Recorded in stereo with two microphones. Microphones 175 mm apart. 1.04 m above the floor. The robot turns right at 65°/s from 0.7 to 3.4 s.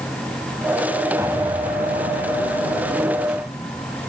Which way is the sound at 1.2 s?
170° right.